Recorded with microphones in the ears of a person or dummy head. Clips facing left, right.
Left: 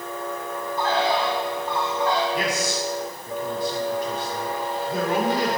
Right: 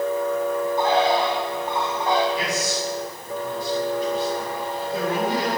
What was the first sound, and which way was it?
A bird, 15° right (ahead or behind).